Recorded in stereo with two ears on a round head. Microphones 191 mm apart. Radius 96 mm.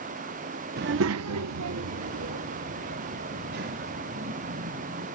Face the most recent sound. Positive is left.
turn(degrees=-45)  # may be behind; listen again after turning